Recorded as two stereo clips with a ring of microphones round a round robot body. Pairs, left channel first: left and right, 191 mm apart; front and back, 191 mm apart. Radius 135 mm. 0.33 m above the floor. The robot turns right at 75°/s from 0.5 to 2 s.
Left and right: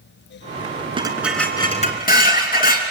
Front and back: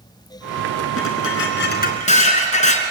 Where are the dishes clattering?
25° right, 3 m; by 2.8 s 50° left, 3 m.